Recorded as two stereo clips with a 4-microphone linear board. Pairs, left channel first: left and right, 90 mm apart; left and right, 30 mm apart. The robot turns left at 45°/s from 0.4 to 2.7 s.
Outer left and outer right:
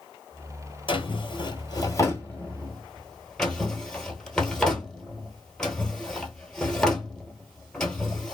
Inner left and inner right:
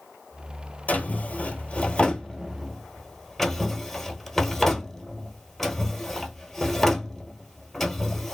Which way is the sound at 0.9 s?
70° left (ahead or behind).